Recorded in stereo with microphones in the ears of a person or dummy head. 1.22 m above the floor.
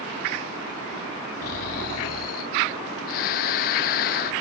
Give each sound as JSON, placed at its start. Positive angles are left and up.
{"t": 1.4, "sound": "snoring", "side_deg": 45}